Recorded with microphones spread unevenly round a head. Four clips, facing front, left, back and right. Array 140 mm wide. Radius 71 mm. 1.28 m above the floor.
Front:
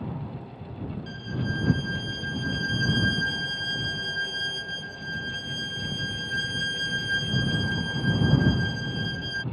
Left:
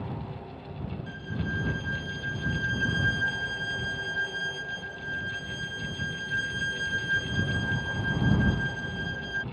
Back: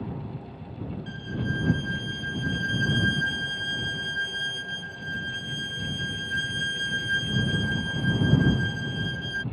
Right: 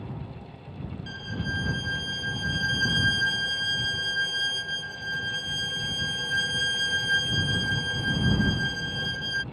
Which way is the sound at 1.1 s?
75° right.